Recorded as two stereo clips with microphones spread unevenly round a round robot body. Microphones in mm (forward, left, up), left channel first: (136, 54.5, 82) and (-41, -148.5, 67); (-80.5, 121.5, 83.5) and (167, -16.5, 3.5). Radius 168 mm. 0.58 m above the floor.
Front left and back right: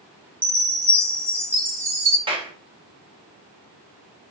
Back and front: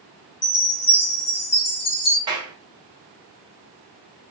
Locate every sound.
0.4 s a chime: 155° left, 1.4 m
2.3 s a clap: 75° right, 0.8 m